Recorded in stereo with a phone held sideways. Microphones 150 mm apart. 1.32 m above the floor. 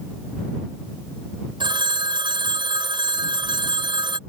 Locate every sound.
1.6 s a phone ringing: 35° right (ahead or behind)